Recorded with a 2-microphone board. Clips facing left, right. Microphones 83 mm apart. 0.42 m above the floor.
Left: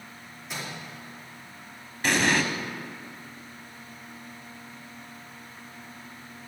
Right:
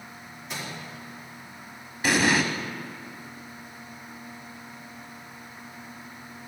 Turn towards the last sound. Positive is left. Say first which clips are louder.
# right 1 dB
turn(degrees=-5)  # may be behind; listen again after turning